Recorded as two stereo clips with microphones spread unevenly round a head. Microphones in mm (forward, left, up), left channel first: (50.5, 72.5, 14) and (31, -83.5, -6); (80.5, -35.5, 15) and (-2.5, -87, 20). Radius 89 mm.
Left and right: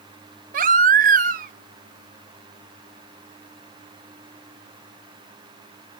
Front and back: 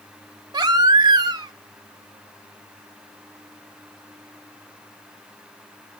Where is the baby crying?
125° right, 0.8 m.